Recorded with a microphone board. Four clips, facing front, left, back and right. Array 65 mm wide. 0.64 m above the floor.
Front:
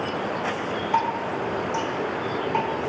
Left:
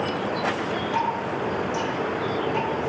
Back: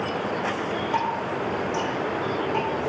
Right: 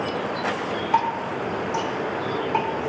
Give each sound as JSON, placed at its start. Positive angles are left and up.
{"t": 0.9, "sound": "dripping", "azimuth_deg": -90, "distance_m": 3.0}